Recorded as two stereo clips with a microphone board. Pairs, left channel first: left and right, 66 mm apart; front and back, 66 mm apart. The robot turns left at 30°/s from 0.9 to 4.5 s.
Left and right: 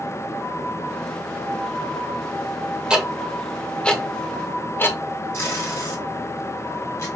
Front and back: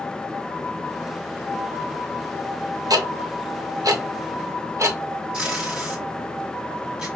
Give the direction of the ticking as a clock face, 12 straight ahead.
6 o'clock.